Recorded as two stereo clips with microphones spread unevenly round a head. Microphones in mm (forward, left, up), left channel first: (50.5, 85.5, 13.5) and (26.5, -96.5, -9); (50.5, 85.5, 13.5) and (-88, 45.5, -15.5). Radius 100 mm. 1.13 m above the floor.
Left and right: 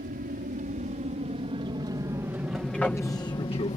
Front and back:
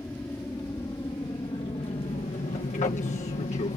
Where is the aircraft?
65° right; by 3.8 s 40° left.